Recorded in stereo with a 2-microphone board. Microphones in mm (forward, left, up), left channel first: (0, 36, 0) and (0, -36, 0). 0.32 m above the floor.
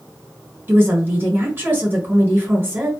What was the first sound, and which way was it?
A woman speaking, 30° right (ahead or behind).